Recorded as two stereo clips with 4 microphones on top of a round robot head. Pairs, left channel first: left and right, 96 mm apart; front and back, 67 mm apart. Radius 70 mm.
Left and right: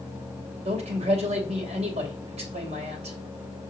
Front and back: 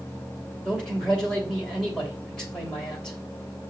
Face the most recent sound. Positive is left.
turn(degrees=-80)